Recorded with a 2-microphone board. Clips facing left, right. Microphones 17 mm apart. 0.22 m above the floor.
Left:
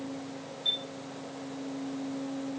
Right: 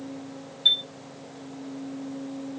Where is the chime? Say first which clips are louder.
Right 10 dB; 55° right (ahead or behind), 0.7 m.